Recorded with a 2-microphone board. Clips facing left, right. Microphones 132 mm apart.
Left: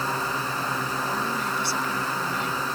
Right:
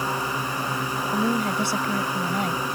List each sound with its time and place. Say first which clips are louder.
0.0 s a drone: right 1 dB; 15° right (ahead or behind)
1.1 s a woman speaking: right 5 dB; 50° right (ahead or behind)